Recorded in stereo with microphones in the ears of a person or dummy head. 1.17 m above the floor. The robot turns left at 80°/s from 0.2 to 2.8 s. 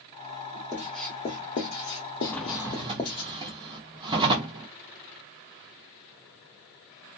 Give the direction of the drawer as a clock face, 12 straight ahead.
12 o'clock.